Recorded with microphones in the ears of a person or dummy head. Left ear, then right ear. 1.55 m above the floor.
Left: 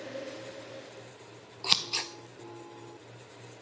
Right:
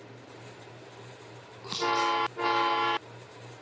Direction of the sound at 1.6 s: 40° left (ahead or behind).